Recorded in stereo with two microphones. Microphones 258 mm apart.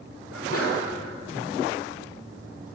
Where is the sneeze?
60° left (ahead or behind), 2 m.